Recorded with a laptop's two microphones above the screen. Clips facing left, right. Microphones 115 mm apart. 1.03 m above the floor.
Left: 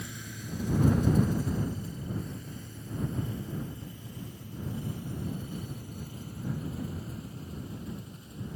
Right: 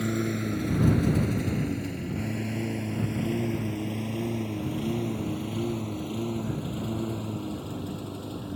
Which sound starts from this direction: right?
A lawn mower, at 0.0 s.